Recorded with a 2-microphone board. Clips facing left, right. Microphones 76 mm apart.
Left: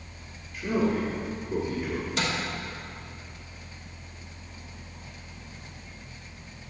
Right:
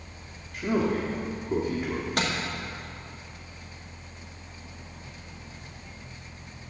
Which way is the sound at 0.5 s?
55° right (ahead or behind).